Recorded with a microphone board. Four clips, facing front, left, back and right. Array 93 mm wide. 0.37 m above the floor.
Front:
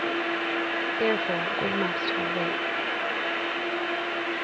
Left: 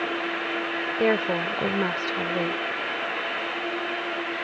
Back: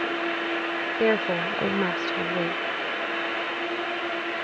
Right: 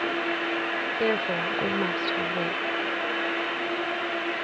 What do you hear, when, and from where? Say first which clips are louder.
1.0 s a woman speaking: left 4 dB, back 4 dB; 135° left